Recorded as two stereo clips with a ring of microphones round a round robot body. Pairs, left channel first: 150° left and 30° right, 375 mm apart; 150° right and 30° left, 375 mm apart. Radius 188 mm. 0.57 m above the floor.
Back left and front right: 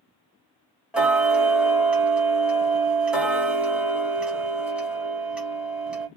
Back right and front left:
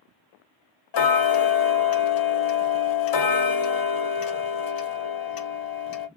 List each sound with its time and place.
0.9 s ticking: 115° right, 0.7 m